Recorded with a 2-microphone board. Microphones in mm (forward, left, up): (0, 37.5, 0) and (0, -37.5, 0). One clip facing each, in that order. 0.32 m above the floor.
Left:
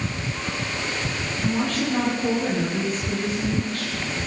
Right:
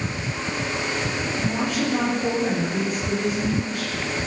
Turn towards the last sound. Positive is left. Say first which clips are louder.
# left 2 dB
turn(degrees=-10)  # may be behind; listen again after turning